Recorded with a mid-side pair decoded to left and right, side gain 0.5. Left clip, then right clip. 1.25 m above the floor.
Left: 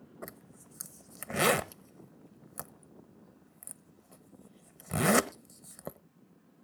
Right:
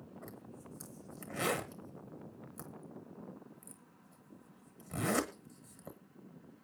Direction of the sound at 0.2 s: 65° left.